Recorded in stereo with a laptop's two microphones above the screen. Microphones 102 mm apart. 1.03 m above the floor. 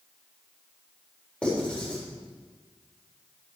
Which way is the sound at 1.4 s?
10° left (ahead or behind).